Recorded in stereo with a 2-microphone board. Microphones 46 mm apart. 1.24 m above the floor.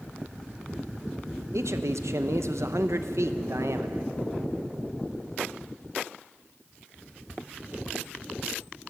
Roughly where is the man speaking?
Right.